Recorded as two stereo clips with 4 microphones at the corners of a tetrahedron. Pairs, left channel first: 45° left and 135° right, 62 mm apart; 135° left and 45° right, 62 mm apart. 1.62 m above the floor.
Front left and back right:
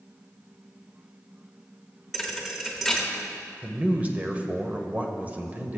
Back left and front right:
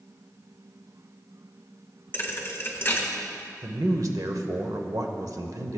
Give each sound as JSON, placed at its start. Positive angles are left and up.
{"t": 2.1, "sound": "a thud", "azimuth_deg": 140, "distance_m": 1.0}
{"t": 3.6, "sound": "a man speaking", "azimuth_deg": -70, "distance_m": 0.8}